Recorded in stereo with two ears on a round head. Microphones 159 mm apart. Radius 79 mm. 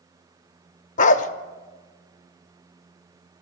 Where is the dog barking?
40° left (ahead or behind), 0.6 m.